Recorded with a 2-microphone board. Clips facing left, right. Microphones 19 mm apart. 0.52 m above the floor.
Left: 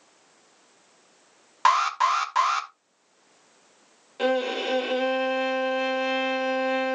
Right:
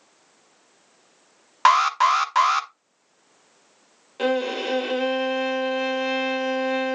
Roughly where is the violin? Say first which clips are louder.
Right 1 dB; centre.